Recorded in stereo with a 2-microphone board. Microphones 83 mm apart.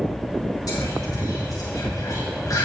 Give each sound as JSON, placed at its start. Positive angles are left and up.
{"t": 0.7, "sound": "whispering", "side_deg": 45, "distance_m": 1.3}